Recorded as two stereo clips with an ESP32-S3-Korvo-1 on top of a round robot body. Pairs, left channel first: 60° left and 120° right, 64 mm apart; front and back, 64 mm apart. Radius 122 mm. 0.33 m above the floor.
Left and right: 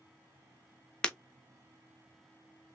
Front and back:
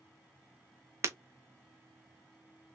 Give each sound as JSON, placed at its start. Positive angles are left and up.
{"t": 1.0, "sound": "breaking glass", "azimuth_deg": 135, "distance_m": 1.1}